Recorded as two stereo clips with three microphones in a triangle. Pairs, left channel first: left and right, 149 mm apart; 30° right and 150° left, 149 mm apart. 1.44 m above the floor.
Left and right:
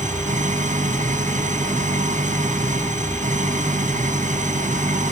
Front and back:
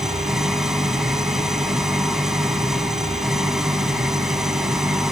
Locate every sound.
0.0 s an engine running: 120° right